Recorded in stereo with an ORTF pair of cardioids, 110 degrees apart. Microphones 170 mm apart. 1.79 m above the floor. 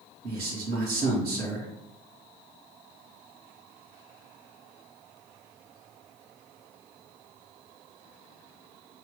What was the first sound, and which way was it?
A man speaking, 60° right.